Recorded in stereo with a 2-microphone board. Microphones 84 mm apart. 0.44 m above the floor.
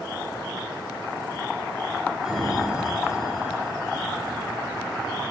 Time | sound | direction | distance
2.2 | a sliding door | 5° right (ahead or behind) | 1.8 m